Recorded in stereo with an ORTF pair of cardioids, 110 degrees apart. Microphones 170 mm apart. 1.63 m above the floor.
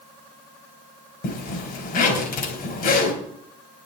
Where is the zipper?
65° left, 3.5 m.